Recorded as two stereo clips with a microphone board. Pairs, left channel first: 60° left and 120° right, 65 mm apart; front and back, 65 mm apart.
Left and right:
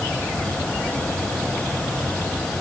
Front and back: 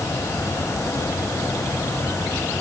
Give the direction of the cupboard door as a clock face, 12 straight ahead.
I don't hear a cupboard door.